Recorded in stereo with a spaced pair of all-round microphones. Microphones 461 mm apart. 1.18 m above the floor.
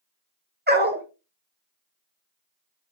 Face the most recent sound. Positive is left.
turn(degrees=-20)  # may be behind; listen again after turning